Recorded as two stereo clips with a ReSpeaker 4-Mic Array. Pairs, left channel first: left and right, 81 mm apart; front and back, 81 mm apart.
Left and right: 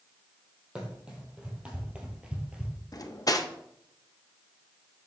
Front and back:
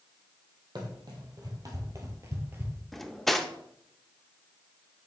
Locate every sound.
0.8 s running footsteps: 165° right, 2 m; by 2.8 s 150° right, 1.4 m
2.9 s cutlery clinking: 85° left, 0.6 m